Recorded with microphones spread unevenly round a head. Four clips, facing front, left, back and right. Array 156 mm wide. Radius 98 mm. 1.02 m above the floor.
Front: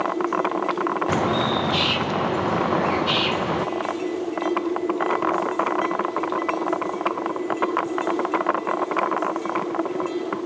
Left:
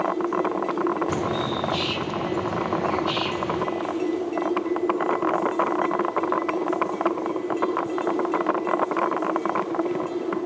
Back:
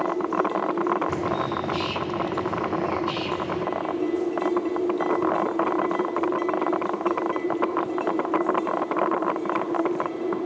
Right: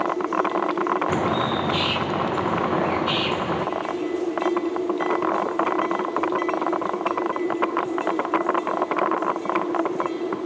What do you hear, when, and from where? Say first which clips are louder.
1.1 s a bird: right 3 dB, front 4 dB; 30° right, 0.5 m